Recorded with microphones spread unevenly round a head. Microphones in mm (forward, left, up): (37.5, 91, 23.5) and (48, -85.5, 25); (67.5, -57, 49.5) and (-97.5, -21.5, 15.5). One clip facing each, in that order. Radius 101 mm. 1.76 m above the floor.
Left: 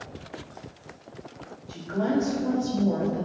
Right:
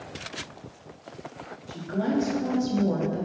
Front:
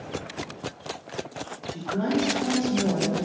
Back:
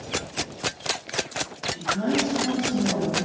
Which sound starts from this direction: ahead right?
A woman speaking, at 1.7 s.